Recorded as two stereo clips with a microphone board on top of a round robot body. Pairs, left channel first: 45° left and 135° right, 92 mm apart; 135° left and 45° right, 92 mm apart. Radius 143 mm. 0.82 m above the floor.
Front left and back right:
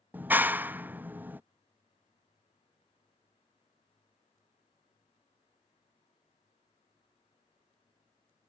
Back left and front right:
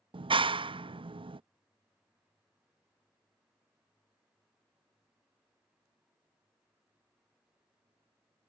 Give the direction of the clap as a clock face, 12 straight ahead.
2 o'clock.